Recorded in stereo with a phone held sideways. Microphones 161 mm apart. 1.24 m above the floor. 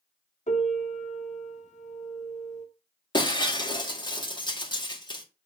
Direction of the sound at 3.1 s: 30° left (ahead or behind).